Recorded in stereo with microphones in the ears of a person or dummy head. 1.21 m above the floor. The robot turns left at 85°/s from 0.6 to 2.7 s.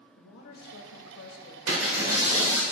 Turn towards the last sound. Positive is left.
turn(degrees=180)